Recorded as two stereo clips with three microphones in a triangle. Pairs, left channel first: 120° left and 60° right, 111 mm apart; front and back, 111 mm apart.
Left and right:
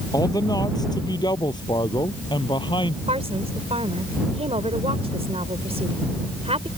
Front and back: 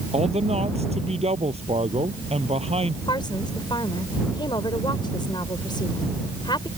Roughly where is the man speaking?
Behind.